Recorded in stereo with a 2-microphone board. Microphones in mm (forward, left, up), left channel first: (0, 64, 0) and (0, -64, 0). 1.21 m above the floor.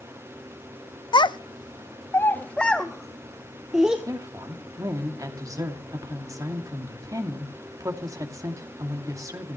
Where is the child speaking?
35° left (ahead or behind), 0.7 m; by 4.0 s 5° right (ahead or behind), 1.5 m.